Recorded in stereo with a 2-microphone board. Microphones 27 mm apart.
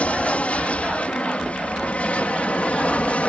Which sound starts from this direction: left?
An aircraft, at 0.0 s.